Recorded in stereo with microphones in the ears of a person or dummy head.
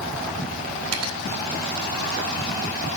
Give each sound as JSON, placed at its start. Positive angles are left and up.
{"t": 0.9, "sound": "cutlery clinking", "side_deg": -85, "distance_m": 3.5}